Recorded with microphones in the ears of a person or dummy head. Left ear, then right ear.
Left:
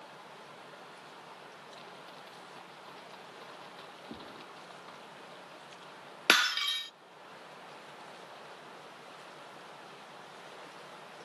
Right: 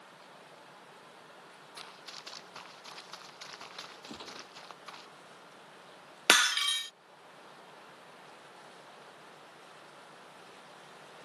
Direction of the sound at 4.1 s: 60° right (ahead or behind).